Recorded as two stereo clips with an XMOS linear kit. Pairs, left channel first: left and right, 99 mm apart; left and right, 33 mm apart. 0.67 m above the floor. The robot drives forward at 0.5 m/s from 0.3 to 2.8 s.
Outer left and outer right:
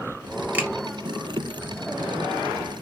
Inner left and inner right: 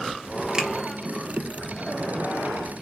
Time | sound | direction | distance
0.5 | a finger snap | 20° right (ahead or behind) | 1.3 m